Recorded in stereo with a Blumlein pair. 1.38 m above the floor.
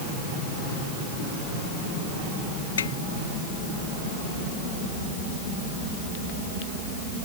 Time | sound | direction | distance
2.8 | a snare drum | 70° left | ?